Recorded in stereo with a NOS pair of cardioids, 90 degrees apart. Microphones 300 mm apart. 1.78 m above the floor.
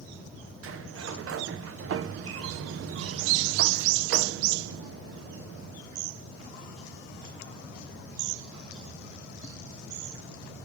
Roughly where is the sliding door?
Ahead right.